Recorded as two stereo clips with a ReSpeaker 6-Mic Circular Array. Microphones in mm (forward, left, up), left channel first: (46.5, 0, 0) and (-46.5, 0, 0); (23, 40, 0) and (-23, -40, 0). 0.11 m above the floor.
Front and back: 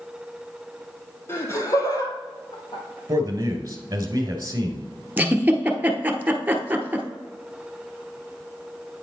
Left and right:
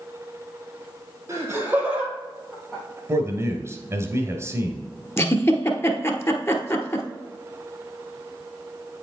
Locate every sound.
1.3 s laughter: 60° right, 3 m; by 3.0 s 15° right, 3 m
3.1 s a man speaking: 155° right, 1.5 m
5.2 s a giggle: 115° left, 1.1 m